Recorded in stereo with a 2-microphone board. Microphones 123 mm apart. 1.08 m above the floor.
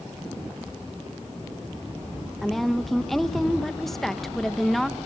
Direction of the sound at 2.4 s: 5° left (ahead or behind).